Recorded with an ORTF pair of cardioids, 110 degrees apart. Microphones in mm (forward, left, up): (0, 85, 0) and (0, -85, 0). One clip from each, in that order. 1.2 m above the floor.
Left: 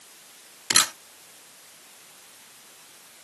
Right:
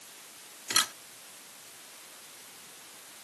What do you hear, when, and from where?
0.7 s a camera shutter: 50° left